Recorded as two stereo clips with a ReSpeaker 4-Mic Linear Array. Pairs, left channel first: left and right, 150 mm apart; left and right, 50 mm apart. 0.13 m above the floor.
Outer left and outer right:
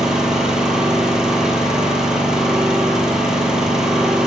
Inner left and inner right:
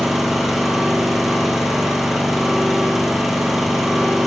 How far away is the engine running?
About 0.8 m.